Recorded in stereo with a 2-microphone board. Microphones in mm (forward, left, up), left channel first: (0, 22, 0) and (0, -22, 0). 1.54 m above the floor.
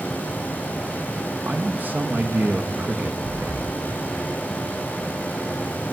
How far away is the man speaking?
About 1.6 m.